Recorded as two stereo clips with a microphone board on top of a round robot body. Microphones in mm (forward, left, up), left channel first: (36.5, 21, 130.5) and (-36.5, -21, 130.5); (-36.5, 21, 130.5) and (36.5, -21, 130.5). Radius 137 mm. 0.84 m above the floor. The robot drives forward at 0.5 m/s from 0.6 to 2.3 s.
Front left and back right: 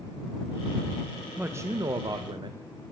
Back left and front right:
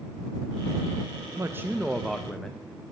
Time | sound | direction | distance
1.4 | a man speaking | 80° right | 0.6 m